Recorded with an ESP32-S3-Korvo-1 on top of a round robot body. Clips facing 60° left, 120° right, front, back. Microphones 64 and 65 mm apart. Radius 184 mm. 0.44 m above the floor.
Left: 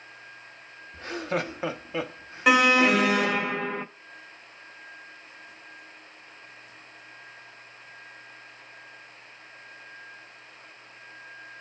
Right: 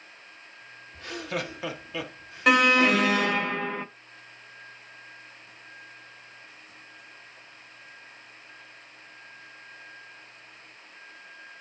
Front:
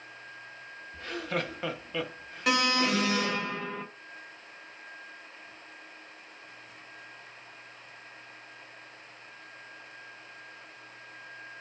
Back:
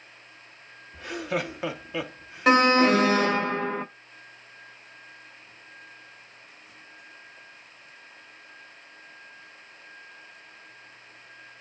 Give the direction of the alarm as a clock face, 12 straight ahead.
7 o'clock.